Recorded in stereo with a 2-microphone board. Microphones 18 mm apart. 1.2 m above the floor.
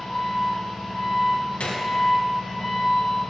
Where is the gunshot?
80° left, 0.6 m.